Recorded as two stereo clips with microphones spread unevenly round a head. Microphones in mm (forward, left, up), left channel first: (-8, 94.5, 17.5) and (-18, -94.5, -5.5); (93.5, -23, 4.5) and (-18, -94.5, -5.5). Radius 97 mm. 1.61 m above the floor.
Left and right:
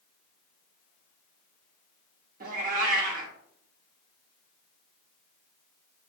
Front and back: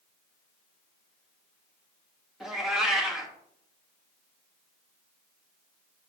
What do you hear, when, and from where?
2.4 s a cat meowing: 55° right, 1.2 m